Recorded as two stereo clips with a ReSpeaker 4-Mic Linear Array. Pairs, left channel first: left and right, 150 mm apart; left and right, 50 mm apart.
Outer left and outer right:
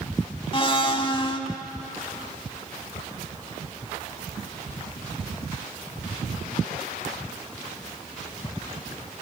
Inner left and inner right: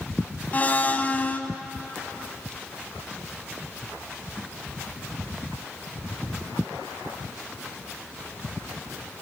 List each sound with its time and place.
0.5 s a blender: 35° left (ahead or behind), 0.7 m